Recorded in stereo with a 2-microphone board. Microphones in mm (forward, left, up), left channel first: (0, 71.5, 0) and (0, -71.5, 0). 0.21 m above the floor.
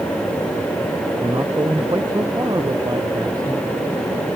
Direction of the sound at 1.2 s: 25° right (ahead or behind).